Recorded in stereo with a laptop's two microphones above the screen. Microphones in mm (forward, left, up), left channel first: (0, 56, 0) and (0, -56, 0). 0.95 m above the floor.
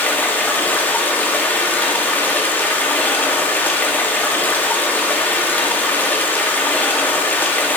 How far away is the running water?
About 1.8 m.